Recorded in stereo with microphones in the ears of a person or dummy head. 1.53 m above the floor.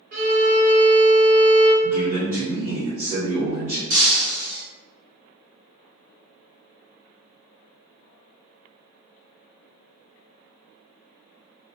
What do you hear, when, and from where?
0.1 s a violin: 50° right (ahead or behind), 1.3 m
1.8 s a man speaking: 50° right (ahead or behind), 1.0 m
3.9 s breaking glass: 55° right (ahead or behind), 1.5 m